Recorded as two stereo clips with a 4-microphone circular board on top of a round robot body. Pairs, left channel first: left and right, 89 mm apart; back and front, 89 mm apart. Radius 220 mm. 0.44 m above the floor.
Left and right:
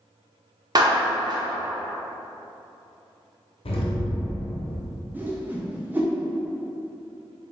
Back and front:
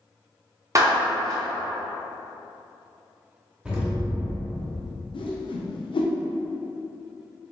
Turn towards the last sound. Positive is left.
turn(degrees=-160)